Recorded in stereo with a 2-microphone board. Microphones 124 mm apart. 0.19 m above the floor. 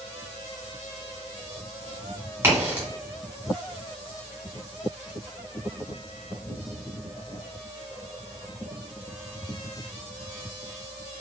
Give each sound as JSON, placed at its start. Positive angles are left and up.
{"t": 2.4, "sound": "a crack", "side_deg": -25, "distance_m": 1.5}